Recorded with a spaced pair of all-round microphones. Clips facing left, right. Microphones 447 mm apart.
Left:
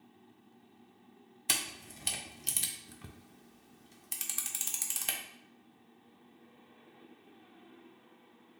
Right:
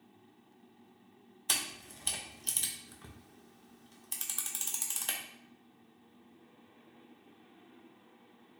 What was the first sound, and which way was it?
A camera shutter, 45° left (ahead or behind).